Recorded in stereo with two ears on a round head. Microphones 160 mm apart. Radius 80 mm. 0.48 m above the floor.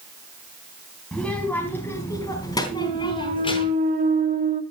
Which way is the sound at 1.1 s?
5° left (ahead or behind).